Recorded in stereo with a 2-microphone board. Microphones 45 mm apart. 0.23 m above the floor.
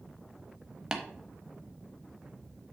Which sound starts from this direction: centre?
Tapping, at 0.9 s.